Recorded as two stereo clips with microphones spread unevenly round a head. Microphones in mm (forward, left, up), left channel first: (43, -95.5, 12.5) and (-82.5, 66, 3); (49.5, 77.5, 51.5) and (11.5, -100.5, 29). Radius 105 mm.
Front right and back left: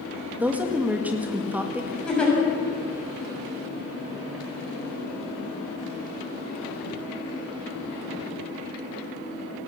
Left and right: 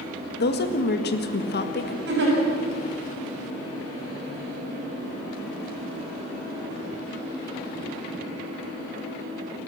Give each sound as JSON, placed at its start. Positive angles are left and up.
{"t": 0.4, "sound": "a woman speaking", "azimuth_deg": 45, "distance_m": 1.9}
{"t": 2.1, "sound": "a giggle", "azimuth_deg": -135, "distance_m": 6.5}